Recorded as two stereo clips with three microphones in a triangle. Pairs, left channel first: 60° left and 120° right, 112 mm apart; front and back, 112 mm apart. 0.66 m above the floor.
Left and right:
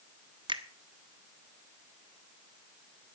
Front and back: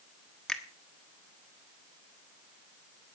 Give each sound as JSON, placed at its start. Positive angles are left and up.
{"t": 0.5, "sound": "a finger snap", "azimuth_deg": -90, "distance_m": 1.4}